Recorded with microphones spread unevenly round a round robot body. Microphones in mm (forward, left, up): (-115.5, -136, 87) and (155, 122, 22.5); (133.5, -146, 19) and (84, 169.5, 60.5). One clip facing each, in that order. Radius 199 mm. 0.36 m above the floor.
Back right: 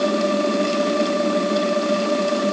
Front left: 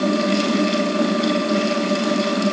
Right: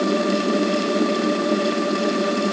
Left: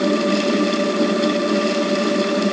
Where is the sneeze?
I don't hear a sneeze.